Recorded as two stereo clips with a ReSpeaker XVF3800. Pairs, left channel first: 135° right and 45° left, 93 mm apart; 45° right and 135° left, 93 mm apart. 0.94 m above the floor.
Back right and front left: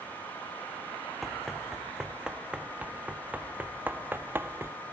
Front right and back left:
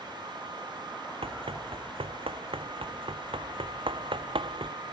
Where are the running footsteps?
135° left; by 4.8 s 110° left.